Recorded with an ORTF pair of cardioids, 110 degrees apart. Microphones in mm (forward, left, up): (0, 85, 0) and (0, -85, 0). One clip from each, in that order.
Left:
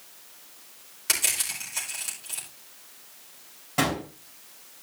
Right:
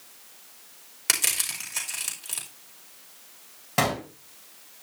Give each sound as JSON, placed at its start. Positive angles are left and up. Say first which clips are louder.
{"t": 1.1, "sound": "crushing", "louder": "right 1 dB", "azimuth_deg": -40, "distance_m": 4.0}
{"t": 3.8, "sound": "a gunshot", "louder": "right 1 dB", "azimuth_deg": -35, "distance_m": 4.5}